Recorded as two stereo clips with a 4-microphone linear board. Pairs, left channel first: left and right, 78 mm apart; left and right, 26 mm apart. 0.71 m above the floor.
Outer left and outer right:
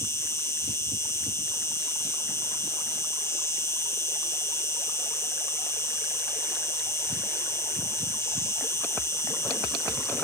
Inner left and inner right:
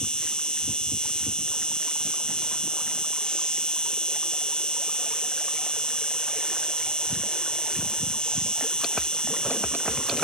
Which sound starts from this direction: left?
An insect, at 0.0 s.